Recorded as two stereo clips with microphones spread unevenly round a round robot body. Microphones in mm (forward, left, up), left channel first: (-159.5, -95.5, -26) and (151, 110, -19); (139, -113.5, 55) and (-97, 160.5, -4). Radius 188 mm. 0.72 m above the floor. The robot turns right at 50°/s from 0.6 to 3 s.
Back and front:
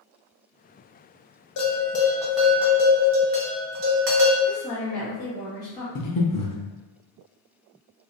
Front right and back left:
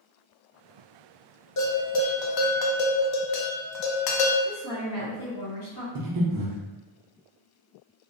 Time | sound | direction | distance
1.6 | a bell | 95° right | 0.5 m
4.5 | a woman speaking | 75° right | 0.8 m
6.0 | breathing | 165° left | 0.5 m